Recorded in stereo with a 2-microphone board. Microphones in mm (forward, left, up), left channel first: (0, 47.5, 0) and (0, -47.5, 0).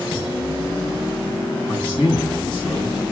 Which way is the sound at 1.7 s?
55° left (ahead or behind).